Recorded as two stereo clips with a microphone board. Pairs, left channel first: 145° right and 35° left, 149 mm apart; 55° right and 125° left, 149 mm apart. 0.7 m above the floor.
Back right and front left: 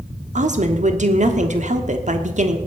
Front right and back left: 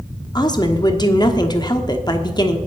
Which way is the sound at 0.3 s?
5° left.